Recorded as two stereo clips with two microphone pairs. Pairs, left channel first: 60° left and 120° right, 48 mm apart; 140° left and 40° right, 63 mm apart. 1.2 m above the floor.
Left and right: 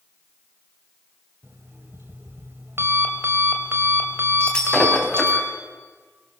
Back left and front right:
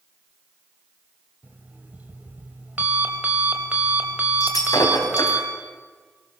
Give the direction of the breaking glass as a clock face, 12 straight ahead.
8 o'clock.